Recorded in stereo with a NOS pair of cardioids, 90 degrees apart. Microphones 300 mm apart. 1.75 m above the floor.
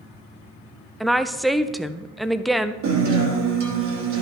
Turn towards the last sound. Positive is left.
turn(degrees=-65)